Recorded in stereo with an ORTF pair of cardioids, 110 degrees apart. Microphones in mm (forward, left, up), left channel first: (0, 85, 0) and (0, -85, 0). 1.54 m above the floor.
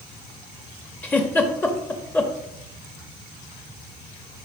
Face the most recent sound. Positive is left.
turn(degrees=10)